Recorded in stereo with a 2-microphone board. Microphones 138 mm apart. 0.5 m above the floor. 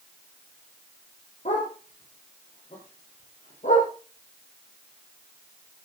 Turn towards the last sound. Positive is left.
turn(degrees=65)  # may be behind; listen again after turning